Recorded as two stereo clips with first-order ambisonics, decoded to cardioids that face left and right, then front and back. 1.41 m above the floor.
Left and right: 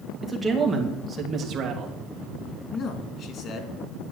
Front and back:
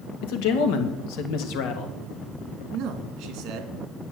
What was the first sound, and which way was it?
A man speaking, 5° right.